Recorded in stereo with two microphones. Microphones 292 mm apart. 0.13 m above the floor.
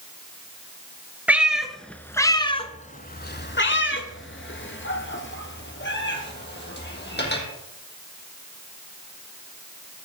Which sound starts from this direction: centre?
A cat meowing, at 1.3 s.